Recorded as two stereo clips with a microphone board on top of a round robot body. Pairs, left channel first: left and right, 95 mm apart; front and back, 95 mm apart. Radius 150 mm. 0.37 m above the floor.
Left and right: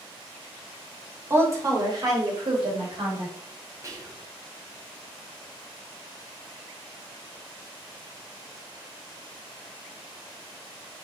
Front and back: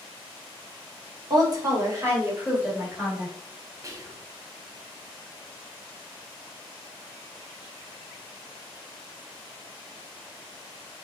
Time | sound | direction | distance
1.3 | a woman speaking | 150° right | 1.9 m
3.8 | whispering | 135° right | 1.3 m